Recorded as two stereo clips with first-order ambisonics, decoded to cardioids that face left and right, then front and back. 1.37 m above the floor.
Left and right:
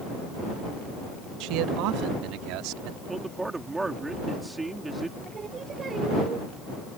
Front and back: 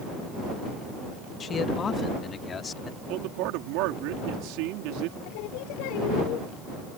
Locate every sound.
1.4 s a man speaking: 65° right; by 3.0 s 70° right
3.1 s a man speaking: 170° right
5.2 s singing: 20° right